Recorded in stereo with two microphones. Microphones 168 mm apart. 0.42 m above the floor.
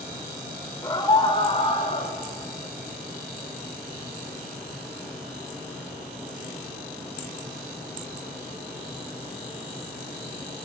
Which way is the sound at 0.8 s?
20° left (ahead or behind).